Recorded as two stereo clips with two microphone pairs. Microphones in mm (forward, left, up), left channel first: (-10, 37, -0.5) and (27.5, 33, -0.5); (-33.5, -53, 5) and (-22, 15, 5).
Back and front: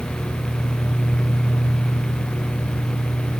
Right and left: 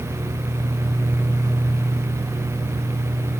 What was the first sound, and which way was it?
Only background noise.